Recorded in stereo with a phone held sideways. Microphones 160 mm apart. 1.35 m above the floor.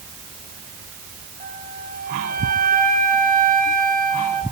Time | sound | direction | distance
1.4 | a flute | 60° right (ahead or behind) | 2.5 m